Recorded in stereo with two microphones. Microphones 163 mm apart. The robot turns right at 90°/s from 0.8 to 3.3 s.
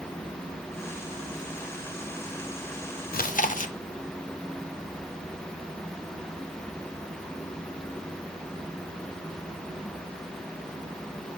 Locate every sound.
3.1 s chewing: 65° left (ahead or behind), 0.5 m; by 3.8 s 55° left (ahead or behind), 0.5 m